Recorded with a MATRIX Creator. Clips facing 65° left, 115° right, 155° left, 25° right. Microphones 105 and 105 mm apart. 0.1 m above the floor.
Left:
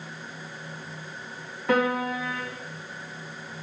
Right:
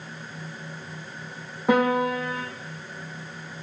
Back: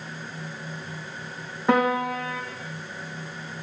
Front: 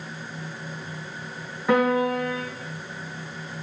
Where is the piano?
135° right, 1.3 m.